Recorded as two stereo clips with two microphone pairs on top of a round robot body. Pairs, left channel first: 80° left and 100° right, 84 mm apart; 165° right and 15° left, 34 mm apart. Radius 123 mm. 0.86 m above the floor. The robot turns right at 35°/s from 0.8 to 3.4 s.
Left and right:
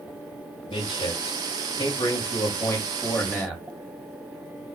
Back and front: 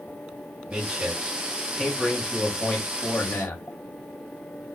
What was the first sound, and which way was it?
A man speaking, 65° left.